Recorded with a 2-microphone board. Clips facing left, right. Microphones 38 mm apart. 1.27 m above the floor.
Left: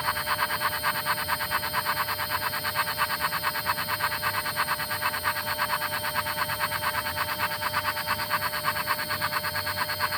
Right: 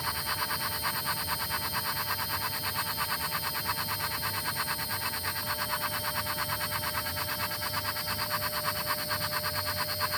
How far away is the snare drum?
No snare drum in this recording.